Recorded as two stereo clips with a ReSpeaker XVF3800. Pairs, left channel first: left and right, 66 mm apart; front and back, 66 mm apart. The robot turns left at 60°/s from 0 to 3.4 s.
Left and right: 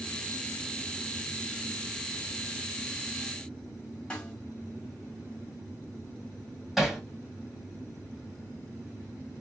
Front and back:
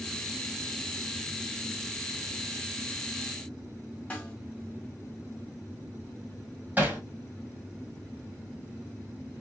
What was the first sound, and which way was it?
A snare drum, 40° left.